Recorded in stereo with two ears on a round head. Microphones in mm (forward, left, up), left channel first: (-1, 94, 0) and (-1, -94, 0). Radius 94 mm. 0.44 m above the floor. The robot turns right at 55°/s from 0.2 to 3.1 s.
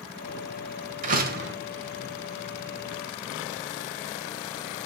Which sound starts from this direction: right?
A door slam, at 1.0 s.